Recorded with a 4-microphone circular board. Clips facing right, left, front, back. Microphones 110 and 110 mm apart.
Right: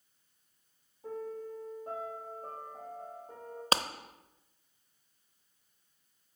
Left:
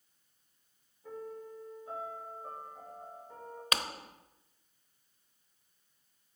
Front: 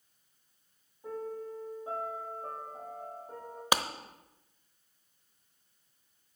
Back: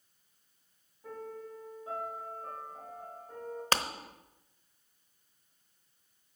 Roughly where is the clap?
Right.